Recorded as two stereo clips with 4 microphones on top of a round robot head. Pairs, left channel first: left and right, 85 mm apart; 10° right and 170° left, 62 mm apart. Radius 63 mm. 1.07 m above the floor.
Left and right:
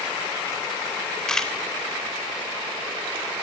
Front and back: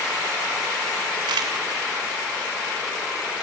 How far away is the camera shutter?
About 3 m.